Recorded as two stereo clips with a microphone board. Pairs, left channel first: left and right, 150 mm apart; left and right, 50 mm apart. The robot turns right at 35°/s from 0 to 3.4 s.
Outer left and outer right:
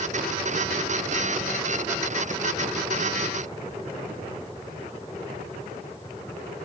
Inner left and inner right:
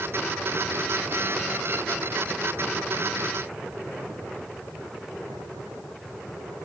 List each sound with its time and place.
Only background noise.